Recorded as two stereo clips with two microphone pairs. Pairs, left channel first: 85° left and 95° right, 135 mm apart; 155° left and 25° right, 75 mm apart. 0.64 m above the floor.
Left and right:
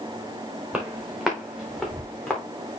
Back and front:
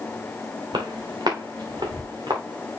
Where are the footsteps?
15° right, 3 m; by 2.4 s straight ahead, 3.5 m.